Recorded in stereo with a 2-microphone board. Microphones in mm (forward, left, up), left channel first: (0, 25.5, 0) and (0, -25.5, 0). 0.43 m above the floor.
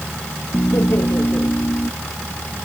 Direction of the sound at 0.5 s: 75° left (ahead or behind).